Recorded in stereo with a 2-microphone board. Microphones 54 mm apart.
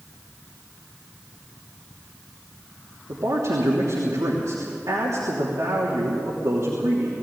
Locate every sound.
3.1 s a man speaking: 80° right, 3 m